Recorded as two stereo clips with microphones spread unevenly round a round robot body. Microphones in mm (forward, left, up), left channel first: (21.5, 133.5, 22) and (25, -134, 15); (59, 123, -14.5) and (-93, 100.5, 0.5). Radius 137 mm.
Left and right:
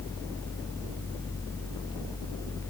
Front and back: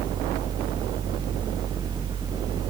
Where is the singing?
I don't hear singing.